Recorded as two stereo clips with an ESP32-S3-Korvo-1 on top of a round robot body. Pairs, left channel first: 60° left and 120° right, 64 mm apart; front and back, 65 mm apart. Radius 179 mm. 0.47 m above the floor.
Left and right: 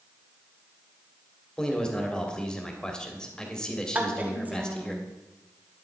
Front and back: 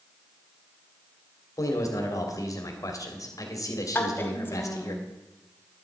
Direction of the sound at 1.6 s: 15° right.